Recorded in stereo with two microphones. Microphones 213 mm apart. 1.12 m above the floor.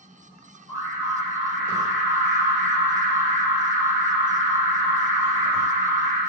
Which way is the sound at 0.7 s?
20° right (ahead or behind).